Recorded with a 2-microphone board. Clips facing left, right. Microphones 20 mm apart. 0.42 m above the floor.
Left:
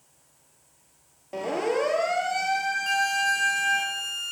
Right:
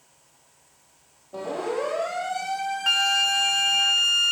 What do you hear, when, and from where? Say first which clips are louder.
1.3 s a siren: left 2 dB; 55° left (ahead or behind), 8 m
2.9 s a flute: right 5 dB; 55° right (ahead or behind), 0.8 m